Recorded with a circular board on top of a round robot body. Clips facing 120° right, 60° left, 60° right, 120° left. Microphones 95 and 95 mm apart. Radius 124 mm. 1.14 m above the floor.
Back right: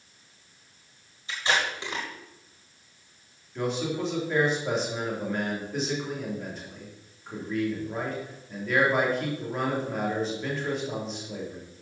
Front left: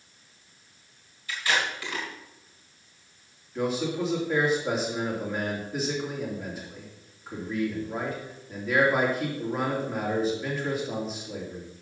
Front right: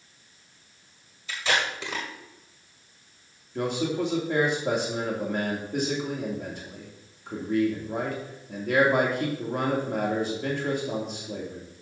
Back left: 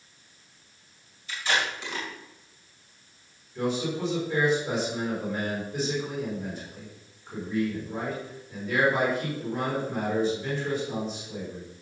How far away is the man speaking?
About 3 m.